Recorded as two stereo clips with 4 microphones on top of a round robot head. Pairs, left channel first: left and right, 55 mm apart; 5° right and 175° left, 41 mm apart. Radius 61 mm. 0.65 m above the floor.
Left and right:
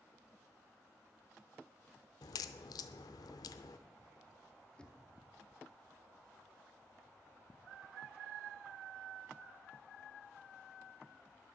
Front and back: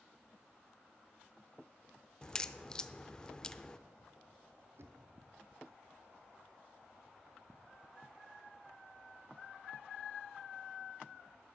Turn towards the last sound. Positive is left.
turn(degrees=160)